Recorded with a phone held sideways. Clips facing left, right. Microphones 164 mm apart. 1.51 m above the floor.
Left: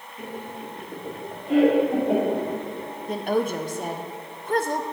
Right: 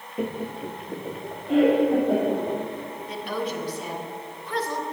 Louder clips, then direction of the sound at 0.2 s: Right 6 dB; 60° right (ahead or behind).